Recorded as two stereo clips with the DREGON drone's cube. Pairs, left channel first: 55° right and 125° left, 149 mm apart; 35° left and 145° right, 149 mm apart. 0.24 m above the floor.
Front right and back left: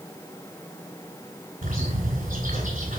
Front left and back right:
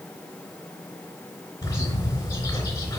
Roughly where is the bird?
Left.